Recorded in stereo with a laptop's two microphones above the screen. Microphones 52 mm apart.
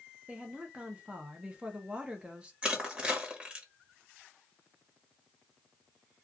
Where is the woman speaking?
20° right (ahead or behind), 0.7 m.